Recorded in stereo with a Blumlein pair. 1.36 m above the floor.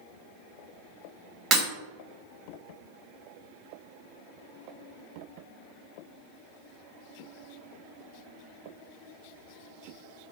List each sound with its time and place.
1.5 s breaking glass: 25° right, 1.5 m